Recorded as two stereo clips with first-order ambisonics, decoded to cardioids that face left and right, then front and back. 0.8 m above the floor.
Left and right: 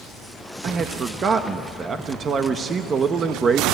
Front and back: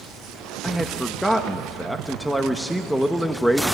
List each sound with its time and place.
0.6 s a man speaking: 85° right, 0.9 m